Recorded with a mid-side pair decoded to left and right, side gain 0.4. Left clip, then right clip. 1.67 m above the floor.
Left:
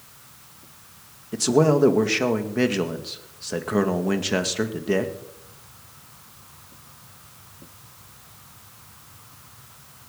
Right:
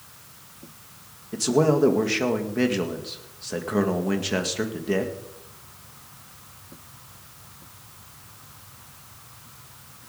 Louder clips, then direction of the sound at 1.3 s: Left 2 dB; 25° left.